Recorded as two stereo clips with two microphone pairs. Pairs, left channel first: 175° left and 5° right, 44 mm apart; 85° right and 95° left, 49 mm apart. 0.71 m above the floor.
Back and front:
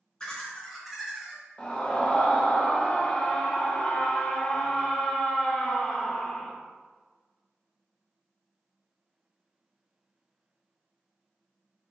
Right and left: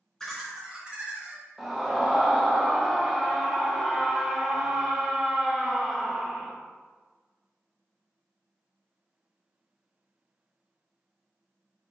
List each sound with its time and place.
0.2 s laughter: 145° right, 0.9 m; by 1.4 s 60° left, 1.1 m
1.6 s a scream: 175° left, 0.7 m